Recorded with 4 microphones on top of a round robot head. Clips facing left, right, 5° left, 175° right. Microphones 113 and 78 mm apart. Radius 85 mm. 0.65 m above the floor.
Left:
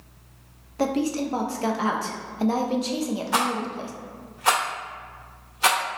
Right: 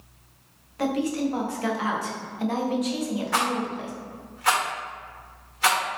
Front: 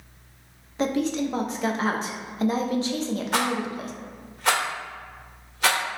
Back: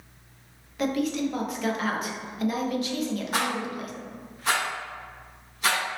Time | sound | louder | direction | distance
0.8 | a woman speaking | left 1 dB, front 2 dB | 50° left | 0.7 m
3.3 | a rattle | left 1 dB, front 3 dB | 20° left | 1.4 m